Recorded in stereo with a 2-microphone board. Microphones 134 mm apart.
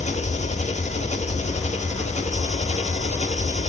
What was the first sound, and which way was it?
An engine running, 60° left (ahead or behind).